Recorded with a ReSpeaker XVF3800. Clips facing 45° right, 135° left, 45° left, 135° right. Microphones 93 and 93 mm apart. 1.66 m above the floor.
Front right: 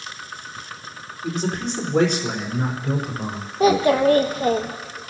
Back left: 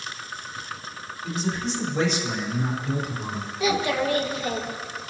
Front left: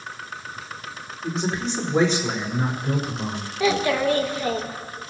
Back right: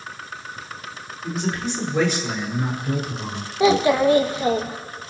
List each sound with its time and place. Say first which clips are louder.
1.2 s a man speaking: front right 3 dB, even; 20° right, 4 m; by 3.5 s 15° right, 5.5 m
3.6 s a child speaking: front right 8 dB, back right 5 dB; 75° right, 1.2 m